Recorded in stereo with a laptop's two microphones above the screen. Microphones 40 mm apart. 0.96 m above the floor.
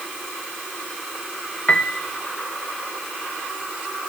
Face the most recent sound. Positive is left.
turn(degrees=35)  # may be behind; listen again after turning